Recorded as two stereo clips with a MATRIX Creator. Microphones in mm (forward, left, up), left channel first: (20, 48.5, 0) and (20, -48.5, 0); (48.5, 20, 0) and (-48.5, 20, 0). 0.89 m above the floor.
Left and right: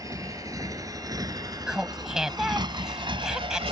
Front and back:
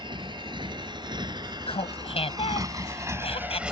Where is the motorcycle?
145° right; by 3.7 s 100° right.